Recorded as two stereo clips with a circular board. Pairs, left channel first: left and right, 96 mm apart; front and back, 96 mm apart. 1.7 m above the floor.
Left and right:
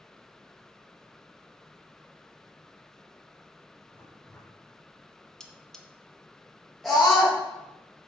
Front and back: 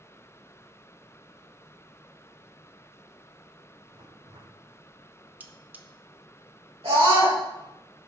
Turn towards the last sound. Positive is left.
turn(degrees=180)